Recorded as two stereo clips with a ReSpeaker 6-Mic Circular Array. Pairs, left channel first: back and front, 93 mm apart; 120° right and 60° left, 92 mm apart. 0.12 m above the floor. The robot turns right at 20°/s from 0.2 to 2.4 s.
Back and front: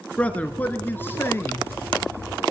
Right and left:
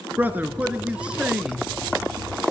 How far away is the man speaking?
About 1.4 m.